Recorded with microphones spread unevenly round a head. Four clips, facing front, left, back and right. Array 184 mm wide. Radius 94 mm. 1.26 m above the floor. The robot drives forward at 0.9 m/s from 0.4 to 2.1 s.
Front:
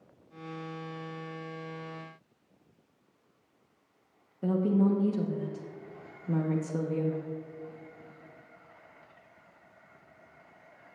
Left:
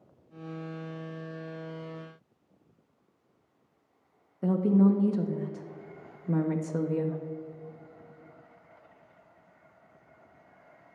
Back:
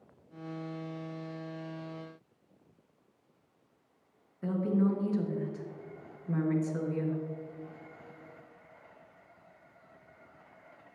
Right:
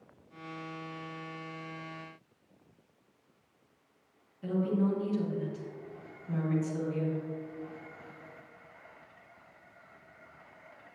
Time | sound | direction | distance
4.4 | a woman speaking | 70° left | 0.8 m